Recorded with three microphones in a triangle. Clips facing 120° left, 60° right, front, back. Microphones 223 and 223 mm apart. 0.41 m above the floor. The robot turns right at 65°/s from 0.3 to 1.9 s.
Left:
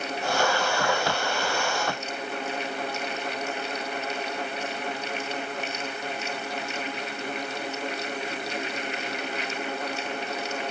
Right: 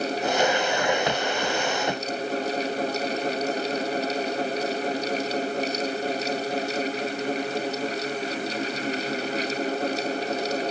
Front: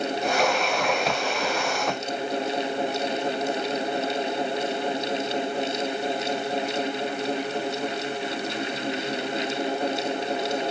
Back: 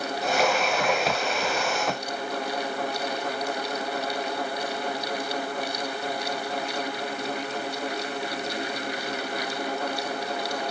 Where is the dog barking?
I don't hear a dog barking.